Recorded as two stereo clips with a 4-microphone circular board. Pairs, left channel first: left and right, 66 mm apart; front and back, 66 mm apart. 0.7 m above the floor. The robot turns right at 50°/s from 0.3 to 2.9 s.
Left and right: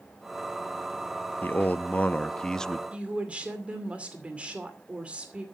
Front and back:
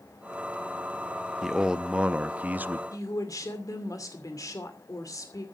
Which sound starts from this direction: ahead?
A woman speaking, at 2.9 s.